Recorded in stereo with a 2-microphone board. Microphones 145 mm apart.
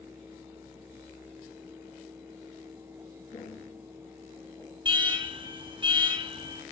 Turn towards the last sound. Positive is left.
turn(degrees=-35)  # may be behind; listen again after turning